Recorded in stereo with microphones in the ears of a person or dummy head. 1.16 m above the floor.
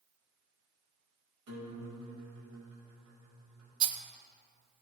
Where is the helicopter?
I don't hear a helicopter.